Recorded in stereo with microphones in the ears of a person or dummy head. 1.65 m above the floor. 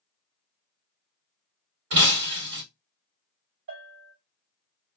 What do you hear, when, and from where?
1.9 s breaking glass: 55° right (ahead or behind), 2.0 m
3.7 s a bell: 50° right (ahead or behind), 1.9 m